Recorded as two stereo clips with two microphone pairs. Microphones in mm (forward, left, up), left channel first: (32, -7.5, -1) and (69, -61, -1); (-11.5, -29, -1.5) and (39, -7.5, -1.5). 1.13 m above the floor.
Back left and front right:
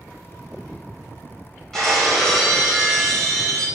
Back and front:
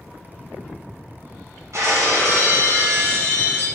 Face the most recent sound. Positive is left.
turn(degrees=40)